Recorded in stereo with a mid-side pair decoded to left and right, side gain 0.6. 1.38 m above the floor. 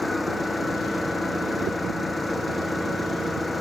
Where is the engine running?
5° left.